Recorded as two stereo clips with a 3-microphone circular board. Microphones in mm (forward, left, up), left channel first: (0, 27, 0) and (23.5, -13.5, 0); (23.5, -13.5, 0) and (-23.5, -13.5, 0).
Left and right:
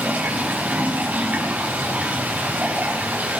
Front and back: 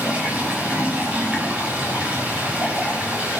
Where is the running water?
120° right, 4 m.